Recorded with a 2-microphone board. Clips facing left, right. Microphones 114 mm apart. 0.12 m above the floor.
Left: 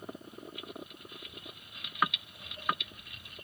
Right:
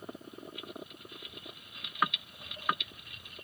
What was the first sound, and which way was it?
Footsteps, 25° right (ahead or behind).